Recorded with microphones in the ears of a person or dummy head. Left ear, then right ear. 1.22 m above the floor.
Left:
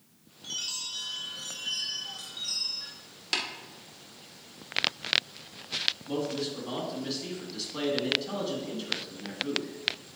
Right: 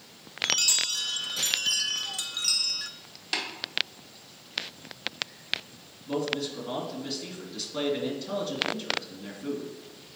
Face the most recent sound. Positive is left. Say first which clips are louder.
# right 2 dB
turn(degrees=0)  # may be behind; listen again after turning